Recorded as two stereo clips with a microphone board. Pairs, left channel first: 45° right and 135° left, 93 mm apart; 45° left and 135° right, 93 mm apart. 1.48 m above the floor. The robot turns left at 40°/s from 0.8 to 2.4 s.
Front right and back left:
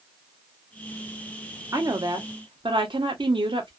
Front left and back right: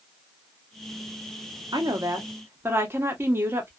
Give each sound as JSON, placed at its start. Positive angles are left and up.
{"t": 1.7, "sound": "a woman speaking", "azimuth_deg": -175, "distance_m": 0.9}